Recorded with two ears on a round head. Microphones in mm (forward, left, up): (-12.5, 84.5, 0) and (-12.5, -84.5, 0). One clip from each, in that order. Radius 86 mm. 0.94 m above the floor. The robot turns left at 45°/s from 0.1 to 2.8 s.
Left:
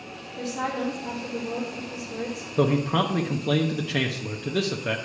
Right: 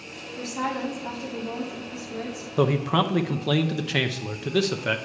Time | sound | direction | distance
0.4 | a woman speaking | 20° right | 2 m
2.6 | a man speaking | 20° right (ahead or behind) | 0.5 m